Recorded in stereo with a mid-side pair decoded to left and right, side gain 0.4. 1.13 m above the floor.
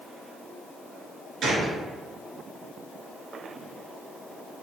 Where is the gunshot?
65° right, 1.5 m.